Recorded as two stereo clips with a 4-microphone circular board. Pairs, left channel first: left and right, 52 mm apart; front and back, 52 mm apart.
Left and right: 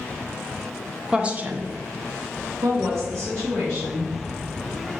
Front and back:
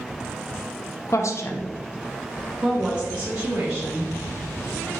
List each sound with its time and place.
1.1 s a woman speaking: 15° right, 0.7 m; by 4.1 s 120° right, 1.8 m